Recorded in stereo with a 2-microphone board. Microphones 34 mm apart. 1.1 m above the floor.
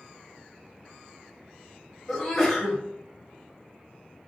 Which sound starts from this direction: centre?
A sneeze, at 2.1 s.